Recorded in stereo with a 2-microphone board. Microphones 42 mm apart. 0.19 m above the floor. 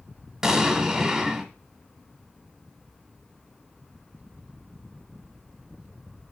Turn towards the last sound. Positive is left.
turn(degrees=-5)  # may be behind; listen again after turning